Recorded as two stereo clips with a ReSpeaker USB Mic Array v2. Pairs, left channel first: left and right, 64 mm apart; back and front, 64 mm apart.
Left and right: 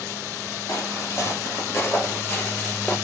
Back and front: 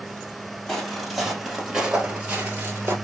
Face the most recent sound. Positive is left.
turn(degrees=25)